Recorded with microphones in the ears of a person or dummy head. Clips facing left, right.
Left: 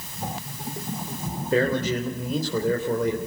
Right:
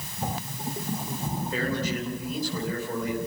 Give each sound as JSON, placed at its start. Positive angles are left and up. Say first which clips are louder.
{"t": 1.5, "sound": "a man speaking", "louder": "left 8 dB", "side_deg": 55, "distance_m": 3.5}